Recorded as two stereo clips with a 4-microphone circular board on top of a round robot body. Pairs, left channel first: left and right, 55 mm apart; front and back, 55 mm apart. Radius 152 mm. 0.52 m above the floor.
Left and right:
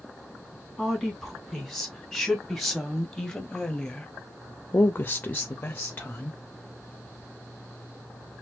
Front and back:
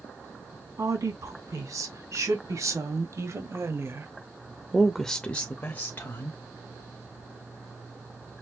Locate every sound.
0.8 s a woman speaking: straight behind, 2.5 m; by 6.4 s 25° left, 1.2 m